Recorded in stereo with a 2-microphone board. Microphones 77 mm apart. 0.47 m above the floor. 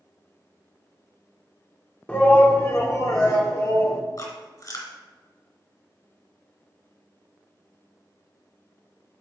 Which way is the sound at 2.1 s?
20° left (ahead or behind).